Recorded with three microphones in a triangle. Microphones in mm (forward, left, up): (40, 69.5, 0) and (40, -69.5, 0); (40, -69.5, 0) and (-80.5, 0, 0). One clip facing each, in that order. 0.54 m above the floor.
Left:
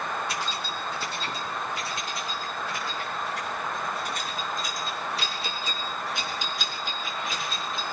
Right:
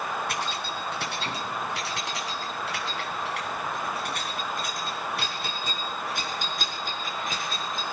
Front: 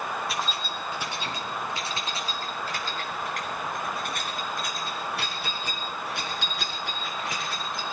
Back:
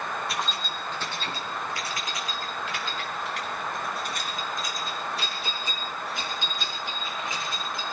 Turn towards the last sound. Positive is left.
turn(degrees=-45)